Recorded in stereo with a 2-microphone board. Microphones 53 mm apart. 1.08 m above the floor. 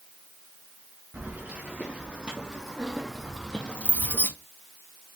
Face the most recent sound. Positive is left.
turn(degrees=40)  # may be behind; listen again after turning